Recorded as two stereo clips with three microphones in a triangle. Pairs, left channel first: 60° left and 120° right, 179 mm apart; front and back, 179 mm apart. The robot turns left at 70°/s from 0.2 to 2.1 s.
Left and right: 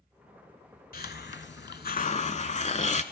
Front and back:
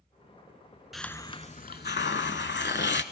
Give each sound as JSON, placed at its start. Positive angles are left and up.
{"t": 0.9, "sound": "a hiss", "azimuth_deg": 90, "distance_m": 0.5}